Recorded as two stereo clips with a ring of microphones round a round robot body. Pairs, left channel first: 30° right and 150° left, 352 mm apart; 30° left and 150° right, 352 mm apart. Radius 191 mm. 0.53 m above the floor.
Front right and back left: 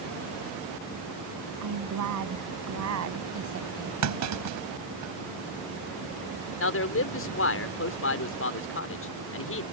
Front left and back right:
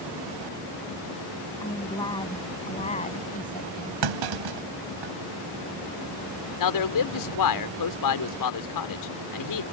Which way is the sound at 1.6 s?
110° left.